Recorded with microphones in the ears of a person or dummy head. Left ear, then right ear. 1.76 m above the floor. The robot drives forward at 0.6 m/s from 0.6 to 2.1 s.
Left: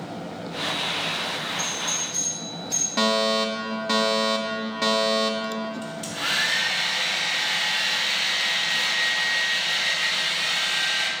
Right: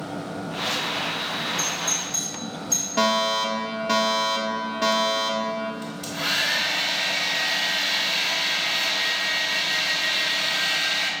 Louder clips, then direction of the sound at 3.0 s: Even; 5° left (ahead or behind).